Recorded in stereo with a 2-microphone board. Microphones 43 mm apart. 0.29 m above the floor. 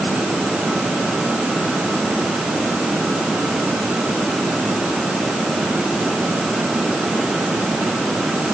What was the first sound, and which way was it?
Only background noise.